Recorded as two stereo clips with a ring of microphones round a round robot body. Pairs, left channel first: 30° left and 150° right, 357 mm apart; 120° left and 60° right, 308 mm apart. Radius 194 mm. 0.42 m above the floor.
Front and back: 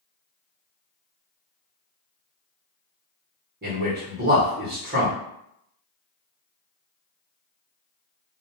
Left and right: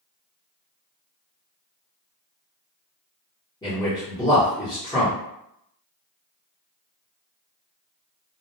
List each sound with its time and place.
3.6 s a man speaking: 175° right, 1.1 m